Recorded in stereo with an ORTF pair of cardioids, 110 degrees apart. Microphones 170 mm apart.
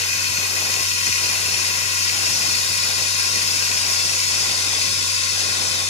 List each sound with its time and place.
0.0 s running water: 40° left, 0.7 m